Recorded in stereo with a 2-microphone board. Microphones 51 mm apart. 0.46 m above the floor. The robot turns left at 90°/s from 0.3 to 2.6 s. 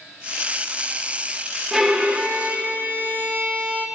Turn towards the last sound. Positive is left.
turn(degrees=-85)